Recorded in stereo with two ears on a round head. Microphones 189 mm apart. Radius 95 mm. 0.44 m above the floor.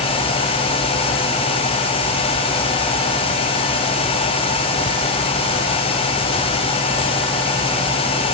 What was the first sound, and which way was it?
Only background noise.